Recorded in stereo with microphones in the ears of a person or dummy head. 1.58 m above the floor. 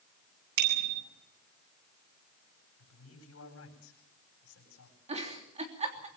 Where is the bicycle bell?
60° right (ahead or behind), 9.5 m.